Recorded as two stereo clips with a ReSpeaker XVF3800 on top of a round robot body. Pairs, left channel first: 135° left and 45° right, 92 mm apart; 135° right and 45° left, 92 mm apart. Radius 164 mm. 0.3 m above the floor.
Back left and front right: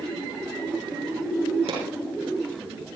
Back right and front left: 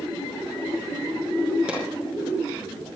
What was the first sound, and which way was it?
A pop, 30° right.